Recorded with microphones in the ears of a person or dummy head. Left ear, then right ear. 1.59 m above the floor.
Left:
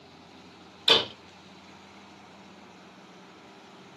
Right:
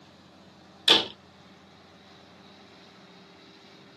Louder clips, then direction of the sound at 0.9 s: Right 1 dB; 5° right (ahead or behind).